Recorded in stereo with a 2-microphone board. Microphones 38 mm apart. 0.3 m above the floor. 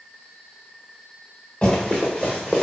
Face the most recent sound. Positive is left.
turn(degrees=0)  # may be behind; listen again after turning